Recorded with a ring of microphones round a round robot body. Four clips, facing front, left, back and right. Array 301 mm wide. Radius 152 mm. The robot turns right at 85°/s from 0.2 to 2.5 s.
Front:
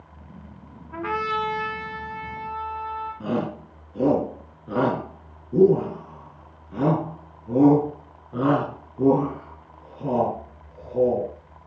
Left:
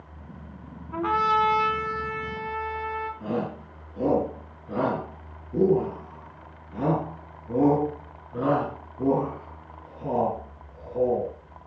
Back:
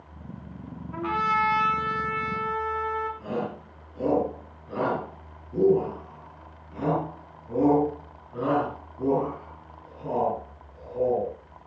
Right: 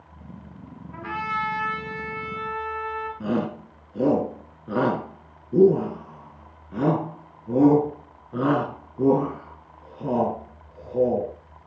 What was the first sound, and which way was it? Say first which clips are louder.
A trumpet: left 7 dB, back 1 dB; 65° left.